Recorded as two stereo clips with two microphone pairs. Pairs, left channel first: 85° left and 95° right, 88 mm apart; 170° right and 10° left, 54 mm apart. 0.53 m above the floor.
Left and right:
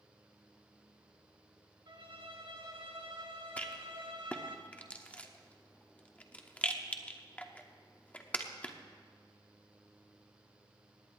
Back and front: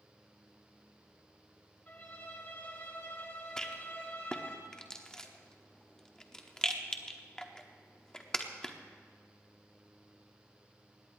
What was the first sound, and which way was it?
A violin, 115° right.